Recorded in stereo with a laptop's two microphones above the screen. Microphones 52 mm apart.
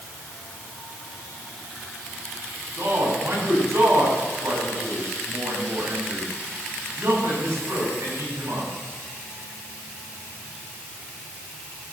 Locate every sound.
2.8 s a man speaking: 55° right (ahead or behind), 7 m